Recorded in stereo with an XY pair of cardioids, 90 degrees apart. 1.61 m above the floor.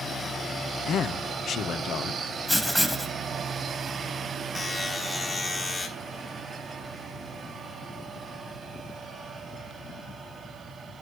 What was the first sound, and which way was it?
A man speaking, 70° left.